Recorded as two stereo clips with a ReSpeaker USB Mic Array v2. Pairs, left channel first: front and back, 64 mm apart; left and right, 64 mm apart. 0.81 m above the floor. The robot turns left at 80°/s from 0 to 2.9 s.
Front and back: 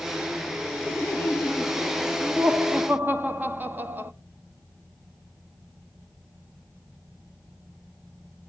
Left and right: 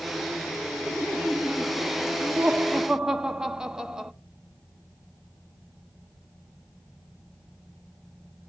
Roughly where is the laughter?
Ahead.